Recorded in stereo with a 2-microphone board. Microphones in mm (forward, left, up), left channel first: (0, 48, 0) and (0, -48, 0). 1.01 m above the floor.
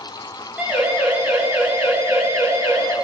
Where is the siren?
15° right (ahead or behind), 6.5 m; by 3.0 s 30° right (ahead or behind), 6.5 m.